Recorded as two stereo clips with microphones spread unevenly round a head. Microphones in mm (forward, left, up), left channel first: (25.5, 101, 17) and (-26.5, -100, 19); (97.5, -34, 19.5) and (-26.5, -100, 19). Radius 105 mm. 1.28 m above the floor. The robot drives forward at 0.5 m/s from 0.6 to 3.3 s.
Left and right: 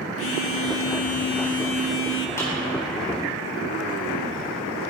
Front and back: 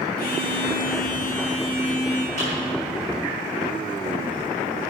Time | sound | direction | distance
0.2 | a phone buzzing | 55° left | 1.1 m
2.4 | a clap | 150° left | 4 m